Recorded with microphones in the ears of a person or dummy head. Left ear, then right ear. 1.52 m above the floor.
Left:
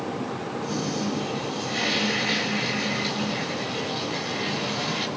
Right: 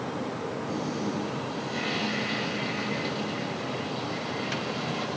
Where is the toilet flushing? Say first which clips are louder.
Left 5 dB; 10° left (ahead or behind), 8 m.